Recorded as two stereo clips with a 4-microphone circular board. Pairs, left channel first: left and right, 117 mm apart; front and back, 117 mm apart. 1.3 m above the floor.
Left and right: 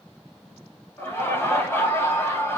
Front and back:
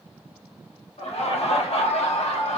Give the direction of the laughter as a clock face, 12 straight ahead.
11 o'clock.